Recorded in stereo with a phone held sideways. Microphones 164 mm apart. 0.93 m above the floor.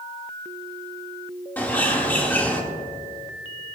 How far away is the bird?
About 1.5 m.